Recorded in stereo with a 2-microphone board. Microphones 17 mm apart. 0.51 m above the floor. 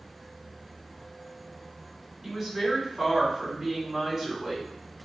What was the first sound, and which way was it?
A woman speaking, 15° right (ahead or behind).